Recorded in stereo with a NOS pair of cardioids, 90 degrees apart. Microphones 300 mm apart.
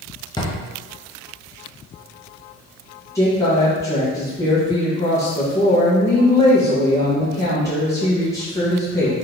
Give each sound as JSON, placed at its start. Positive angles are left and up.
{"t": 0.4, "sound": "a drawer", "azimuth_deg": 15, "distance_m": 1.1}
{"t": 3.1, "sound": "a woman speaking", "azimuth_deg": 10, "distance_m": 1.6}